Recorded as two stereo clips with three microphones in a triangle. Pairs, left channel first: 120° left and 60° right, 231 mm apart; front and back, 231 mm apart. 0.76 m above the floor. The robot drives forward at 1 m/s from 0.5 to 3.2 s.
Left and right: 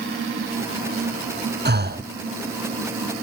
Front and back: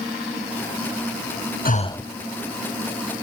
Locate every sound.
1.6 s breathing: 35° right, 0.6 m; by 2.1 s 90° right, 0.5 m